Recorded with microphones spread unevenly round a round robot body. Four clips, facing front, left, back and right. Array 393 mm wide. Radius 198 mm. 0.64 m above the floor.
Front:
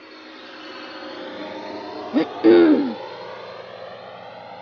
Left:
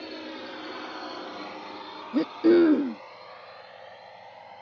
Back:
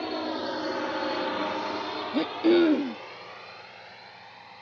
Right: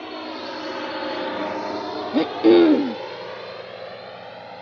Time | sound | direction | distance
0.0 | a drone | 160° right | ?
2.1 | throat clearing | 20° right | ?